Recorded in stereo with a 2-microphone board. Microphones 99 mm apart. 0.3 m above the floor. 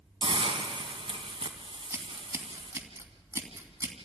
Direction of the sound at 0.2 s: 60° right (ahead or behind).